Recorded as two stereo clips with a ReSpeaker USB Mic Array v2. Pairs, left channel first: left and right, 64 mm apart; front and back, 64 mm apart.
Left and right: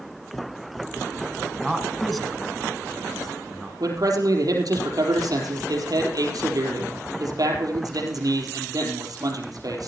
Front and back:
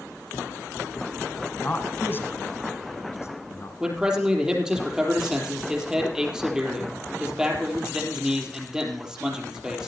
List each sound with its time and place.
1.6 s a man speaking: 5° right, 1.6 m; by 3.7 s 10° left, 2.5 m
3.8 s a man speaking: 100° right, 4 m